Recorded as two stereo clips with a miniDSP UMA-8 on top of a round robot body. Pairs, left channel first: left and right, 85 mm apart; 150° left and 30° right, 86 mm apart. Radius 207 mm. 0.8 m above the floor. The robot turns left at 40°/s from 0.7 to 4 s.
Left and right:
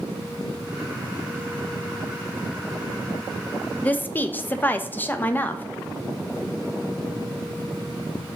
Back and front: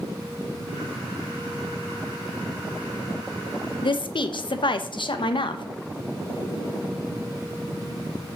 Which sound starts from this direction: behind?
A woman speaking, at 3.8 s.